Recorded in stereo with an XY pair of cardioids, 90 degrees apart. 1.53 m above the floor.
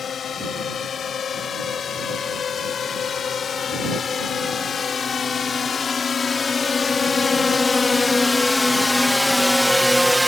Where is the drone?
60° left; by 10.3 s straight ahead.